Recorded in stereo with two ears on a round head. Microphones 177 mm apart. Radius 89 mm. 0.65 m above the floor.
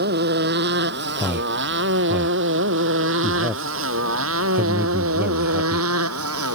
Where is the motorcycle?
55° right (ahead or behind); by 6.5 s 90° right.